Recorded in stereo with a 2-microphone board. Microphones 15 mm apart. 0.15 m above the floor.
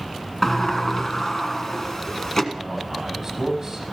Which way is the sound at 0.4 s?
30° left (ahead or behind).